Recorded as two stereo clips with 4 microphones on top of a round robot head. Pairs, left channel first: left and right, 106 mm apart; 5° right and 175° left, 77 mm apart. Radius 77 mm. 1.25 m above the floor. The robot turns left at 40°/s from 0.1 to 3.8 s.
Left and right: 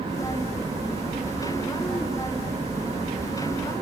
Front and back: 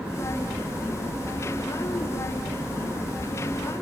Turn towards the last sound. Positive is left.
No sound to turn to.